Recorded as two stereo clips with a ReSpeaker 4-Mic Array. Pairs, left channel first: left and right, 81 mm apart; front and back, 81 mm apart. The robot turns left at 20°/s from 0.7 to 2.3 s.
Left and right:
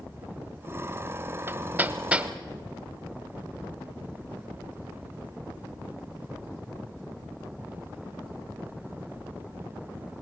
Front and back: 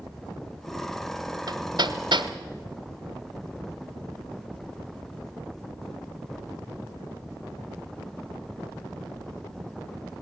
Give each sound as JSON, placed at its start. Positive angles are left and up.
{"t": 1.5, "sound": "hammering", "azimuth_deg": -150, "distance_m": 0.9}